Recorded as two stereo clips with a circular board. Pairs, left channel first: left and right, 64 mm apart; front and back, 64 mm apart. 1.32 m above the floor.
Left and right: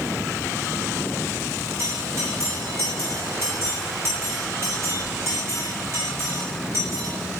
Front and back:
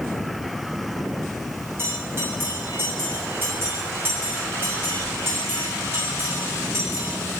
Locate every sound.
1.8 s a bell: 130° right, 6 m